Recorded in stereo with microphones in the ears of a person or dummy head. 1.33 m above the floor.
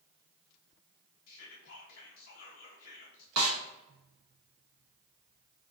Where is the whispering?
50° left (ahead or behind), 0.8 m.